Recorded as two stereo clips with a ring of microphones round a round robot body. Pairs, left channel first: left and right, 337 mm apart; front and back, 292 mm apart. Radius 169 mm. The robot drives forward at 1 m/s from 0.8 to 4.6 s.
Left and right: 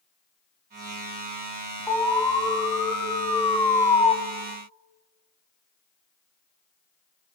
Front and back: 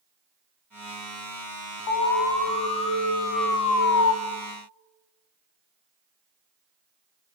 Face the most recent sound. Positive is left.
turn(degrees=20)